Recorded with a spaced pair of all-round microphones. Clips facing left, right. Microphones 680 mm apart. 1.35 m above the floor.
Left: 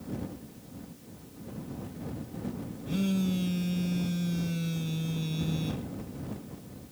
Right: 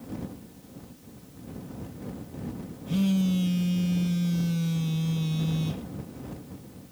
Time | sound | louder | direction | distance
2.9 | a phone buzzing | right 4 dB | 35° right (ahead or behind) | ?